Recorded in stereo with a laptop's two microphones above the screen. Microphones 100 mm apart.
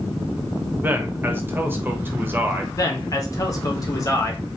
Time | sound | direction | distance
0.8 | a man speaking | 20° right (ahead or behind) | 0.9 m
2.8 | a man speaking | 35° left (ahead or behind) | 1.0 m